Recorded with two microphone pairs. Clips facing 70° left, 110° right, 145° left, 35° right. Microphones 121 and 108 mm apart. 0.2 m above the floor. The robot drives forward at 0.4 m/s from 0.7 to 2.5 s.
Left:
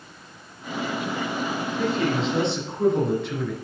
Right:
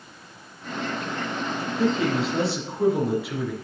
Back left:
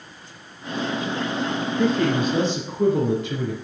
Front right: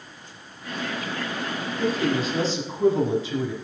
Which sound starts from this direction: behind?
A man speaking, at 1.8 s.